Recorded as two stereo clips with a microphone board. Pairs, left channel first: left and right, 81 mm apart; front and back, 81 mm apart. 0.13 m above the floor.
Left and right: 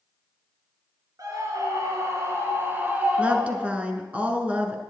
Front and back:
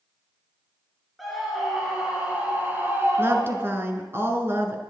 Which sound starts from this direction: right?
A scream, at 1.2 s.